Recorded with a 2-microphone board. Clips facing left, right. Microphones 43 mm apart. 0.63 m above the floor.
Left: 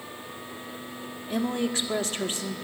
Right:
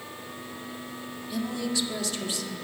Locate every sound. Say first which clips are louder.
1.3 s a woman speaking: left 3 dB; 45° left (ahead or behind), 1.6 m